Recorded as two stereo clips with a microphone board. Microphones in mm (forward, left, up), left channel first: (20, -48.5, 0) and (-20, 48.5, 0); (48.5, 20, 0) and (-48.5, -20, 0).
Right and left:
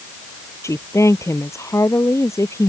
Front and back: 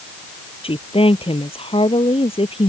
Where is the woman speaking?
5° right.